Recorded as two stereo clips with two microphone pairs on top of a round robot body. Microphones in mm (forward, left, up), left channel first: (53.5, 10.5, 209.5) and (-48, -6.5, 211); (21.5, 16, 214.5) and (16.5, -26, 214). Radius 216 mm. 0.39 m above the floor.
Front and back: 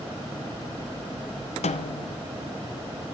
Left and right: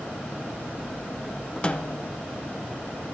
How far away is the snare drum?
About 0.9 m.